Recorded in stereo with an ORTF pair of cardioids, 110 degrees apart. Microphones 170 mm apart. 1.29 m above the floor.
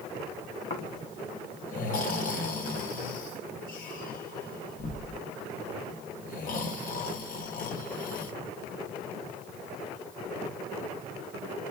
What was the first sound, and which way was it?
Snoring, 50° left.